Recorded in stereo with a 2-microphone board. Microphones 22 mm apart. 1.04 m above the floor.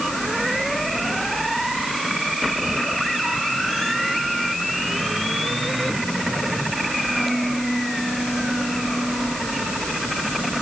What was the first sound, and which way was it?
Only background noise.